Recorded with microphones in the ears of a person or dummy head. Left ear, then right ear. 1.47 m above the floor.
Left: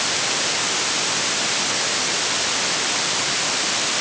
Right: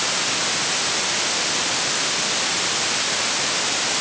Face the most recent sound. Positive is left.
No sound to turn to.